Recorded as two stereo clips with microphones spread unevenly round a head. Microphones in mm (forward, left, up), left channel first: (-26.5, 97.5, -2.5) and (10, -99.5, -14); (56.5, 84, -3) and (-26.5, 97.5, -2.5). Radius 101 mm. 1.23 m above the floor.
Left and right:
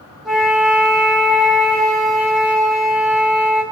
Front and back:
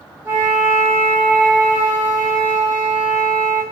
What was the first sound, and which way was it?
A flute, 160° right.